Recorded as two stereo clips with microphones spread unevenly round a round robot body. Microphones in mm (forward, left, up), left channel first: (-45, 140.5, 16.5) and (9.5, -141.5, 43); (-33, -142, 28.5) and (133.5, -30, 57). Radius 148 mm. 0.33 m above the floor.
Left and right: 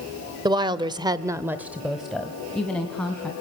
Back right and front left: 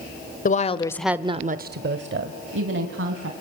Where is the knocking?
No knocking in this recording.